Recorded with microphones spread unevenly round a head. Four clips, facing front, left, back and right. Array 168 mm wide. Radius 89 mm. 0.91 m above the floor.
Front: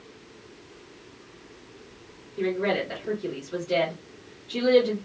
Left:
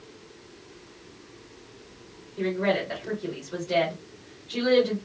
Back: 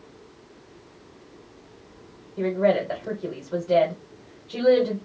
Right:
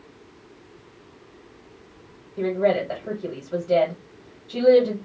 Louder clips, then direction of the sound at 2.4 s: Right 4 dB, back 4 dB; 150° right.